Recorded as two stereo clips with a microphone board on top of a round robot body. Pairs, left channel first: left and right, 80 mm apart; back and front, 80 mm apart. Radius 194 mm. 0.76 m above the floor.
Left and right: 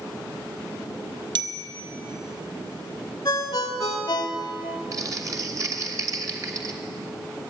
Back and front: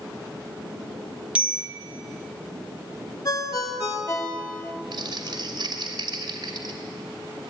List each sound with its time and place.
1.4 s a bicycle bell: 75° right, 2 m
3.2 s a ringtone: 130° left, 2.5 m
4.9 s crumpling: 40° right, 2.5 m